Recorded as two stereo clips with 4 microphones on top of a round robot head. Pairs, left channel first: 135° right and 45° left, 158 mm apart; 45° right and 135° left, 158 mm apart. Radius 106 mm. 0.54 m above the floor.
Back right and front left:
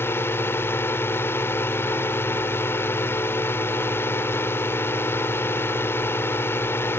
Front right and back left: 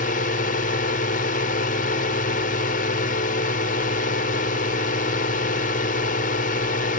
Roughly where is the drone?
Ahead right.